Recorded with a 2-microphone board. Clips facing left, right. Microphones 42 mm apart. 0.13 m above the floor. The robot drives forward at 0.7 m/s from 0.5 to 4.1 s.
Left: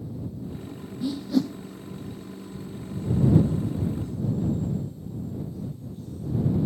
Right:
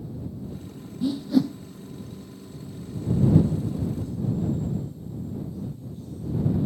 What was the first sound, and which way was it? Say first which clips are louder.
A whoosh: right 3 dB; 5° right (ahead or behind).